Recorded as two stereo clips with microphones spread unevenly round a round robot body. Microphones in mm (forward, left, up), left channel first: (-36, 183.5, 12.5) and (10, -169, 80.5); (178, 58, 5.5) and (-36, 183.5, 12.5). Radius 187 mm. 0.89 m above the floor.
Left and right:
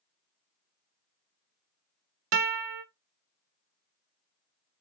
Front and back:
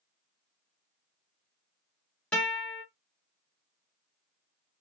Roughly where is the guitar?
Right.